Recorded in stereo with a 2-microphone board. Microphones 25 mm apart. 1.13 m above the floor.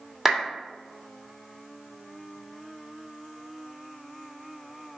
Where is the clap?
15° right (ahead or behind), 1.7 m.